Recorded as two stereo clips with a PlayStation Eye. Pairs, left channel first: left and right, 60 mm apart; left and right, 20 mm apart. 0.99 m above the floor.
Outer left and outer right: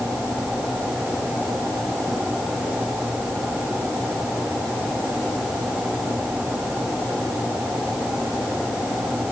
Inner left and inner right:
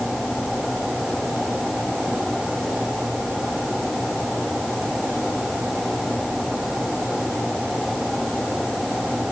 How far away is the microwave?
I don't hear a microwave.